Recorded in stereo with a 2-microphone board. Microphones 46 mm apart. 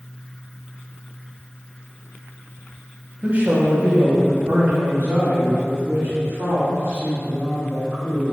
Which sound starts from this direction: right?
A man speaking, at 3.2 s.